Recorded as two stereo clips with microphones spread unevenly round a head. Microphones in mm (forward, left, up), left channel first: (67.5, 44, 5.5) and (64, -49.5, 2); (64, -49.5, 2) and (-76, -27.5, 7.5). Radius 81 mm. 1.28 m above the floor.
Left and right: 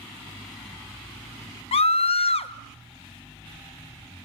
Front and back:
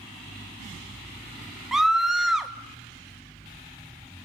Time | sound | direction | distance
1.7 | a scream | 85° left | 1.3 m